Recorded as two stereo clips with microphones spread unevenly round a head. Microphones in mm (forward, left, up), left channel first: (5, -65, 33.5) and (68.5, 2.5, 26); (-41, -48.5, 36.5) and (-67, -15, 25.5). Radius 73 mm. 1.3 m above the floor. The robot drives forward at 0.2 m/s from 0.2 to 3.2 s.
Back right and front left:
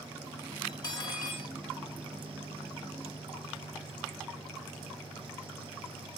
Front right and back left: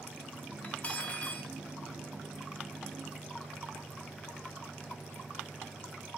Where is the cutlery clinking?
95° right, 1.6 m; by 1.5 s 105° right, 1.7 m.